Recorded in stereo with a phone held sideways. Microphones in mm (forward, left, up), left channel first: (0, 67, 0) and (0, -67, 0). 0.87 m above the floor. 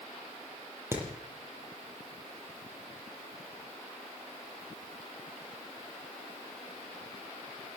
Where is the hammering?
20° right (ahead or behind), 7 m.